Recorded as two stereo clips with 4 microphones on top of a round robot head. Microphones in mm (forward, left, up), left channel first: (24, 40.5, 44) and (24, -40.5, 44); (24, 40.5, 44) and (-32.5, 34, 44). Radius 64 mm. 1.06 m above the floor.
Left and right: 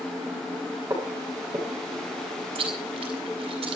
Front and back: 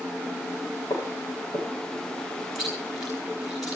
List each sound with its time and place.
0.9 s footsteps: 30° right, 10 m
2.5 s chewing: 85° right, 6.5 m